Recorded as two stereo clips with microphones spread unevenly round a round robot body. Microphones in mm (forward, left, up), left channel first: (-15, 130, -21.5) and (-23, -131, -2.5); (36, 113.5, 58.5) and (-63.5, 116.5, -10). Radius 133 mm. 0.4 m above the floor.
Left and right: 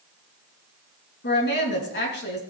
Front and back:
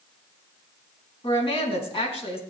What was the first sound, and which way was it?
A woman speaking, 35° left.